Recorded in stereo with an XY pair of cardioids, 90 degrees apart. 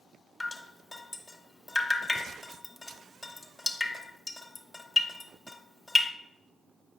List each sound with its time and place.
0.4 s dripping: 20° left, 0.9 m